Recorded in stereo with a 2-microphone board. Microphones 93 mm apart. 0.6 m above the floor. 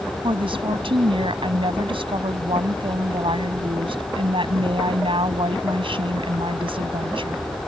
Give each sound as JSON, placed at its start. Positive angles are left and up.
{"t": 0.2, "sound": "a woman speaking", "side_deg": -80}